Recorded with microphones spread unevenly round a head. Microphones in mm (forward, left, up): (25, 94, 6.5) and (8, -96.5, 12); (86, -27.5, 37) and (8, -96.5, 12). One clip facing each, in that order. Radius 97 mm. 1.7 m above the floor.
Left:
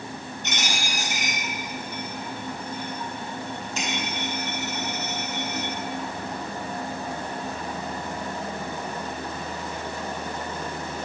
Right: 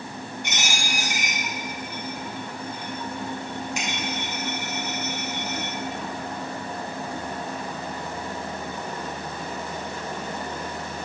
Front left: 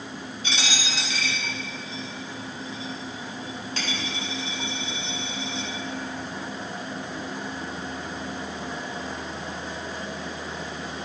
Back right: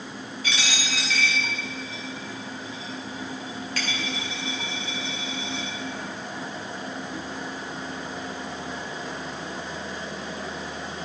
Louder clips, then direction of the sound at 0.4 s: Left 3 dB, even; 15° right.